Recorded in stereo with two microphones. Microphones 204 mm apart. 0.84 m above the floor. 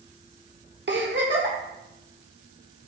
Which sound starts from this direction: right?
A giggle, at 0.9 s.